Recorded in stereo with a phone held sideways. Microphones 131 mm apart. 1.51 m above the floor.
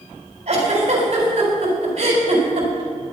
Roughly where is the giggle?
Right.